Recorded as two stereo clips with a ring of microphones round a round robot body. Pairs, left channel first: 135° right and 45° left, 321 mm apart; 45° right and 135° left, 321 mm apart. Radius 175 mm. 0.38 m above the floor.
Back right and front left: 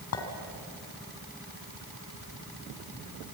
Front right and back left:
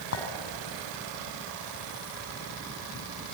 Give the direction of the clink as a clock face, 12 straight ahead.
3 o'clock.